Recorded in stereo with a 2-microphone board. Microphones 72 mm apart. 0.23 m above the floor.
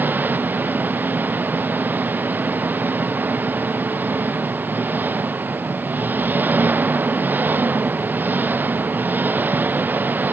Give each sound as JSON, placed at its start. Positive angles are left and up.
{"t": 0.0, "sound": "an engine running", "side_deg": -25}